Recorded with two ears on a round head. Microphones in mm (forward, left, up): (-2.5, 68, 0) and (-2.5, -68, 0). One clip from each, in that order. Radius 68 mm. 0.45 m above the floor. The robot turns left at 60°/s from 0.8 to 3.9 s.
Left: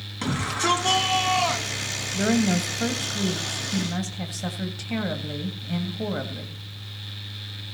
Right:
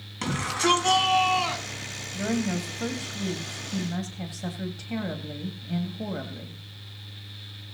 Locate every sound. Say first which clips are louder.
0.2 s a shout: even; 155° right, 4.5 m; by 1.8 s 145° left, 4.5 m
2.1 s a woman speaking: left 6 dB; 125° left, 2.5 m; by 6.6 s 20° left, 2.5 m